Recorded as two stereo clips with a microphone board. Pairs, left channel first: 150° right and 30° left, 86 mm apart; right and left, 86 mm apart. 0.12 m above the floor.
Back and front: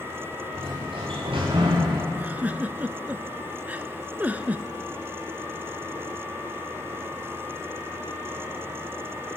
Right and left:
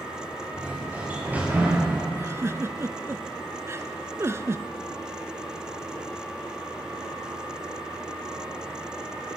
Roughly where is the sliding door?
Ahead.